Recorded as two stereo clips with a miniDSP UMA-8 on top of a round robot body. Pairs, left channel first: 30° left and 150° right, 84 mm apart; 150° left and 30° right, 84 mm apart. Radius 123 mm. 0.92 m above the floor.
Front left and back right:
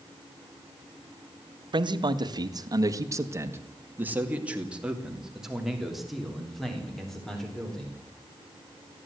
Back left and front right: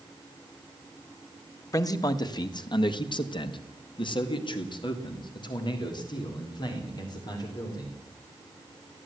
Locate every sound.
1.7 s a man speaking: 165° right, 1.9 m; by 8.0 s 110° left, 4.5 m